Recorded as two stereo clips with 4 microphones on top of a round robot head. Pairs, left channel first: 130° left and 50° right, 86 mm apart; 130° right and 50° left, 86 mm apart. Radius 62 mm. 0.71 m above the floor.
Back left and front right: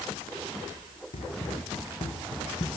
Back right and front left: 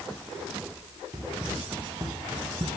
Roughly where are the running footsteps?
Left.